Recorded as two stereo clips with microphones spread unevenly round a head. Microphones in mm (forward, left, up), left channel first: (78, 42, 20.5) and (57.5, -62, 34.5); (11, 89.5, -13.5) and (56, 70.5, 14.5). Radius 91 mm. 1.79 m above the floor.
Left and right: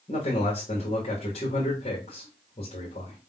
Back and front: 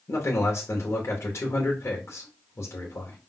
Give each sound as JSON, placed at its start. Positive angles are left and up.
{"t": 0.1, "sound": "a man speaking", "azimuth_deg": 130, "distance_m": 1.0}